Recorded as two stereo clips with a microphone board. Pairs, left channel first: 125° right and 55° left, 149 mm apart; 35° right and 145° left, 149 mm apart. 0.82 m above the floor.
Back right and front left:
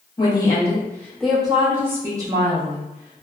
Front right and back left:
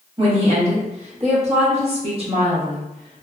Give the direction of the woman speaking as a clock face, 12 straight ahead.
6 o'clock.